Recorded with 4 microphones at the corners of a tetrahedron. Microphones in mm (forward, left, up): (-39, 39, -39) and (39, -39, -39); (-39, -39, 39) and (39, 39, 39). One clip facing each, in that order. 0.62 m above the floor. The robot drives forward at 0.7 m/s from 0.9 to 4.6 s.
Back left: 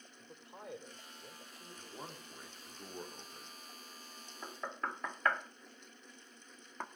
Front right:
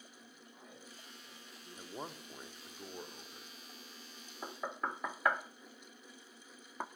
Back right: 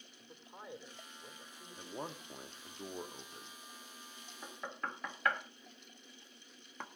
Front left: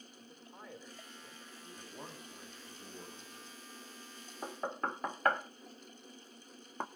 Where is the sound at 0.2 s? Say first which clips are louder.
Back left 11 dB, back right 2 dB; 150° left, 1.6 m; by 2.8 s 165° left, 3 m.